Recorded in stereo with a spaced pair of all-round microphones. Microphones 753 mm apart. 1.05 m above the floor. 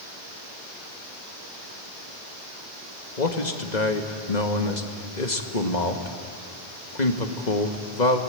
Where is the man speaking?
65° left (ahead or behind), 2 m.